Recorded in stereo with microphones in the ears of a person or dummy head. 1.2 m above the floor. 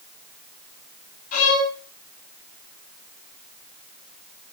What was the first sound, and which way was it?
A violin, 50° left (ahead or behind).